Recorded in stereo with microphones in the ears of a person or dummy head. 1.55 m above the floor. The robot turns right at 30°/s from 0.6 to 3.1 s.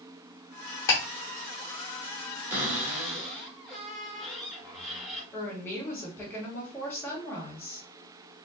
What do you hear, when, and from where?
0.9 s ticking: 20° left (ahead or behind), 1.3 m
2.5 s a cupboard door: 15° right (ahead or behind), 1.6 m; by 5.2 s centre (ahead or behind), 1.6 m
5.3 s a woman speaking: 10° left (ahead or behind), 2.0 m